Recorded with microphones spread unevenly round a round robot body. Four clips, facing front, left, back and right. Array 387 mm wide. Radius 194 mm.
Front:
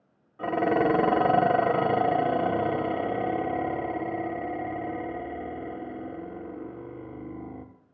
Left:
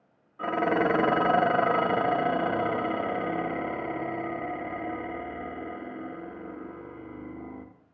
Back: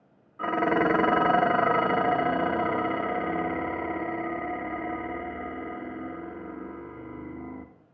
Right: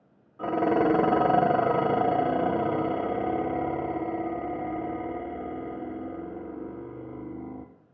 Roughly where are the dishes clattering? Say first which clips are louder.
Right 2 dB, even; right.